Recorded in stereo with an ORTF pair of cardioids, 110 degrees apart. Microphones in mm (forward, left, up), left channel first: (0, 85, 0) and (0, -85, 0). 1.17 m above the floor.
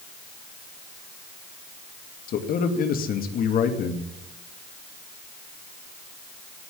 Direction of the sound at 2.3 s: 60° left.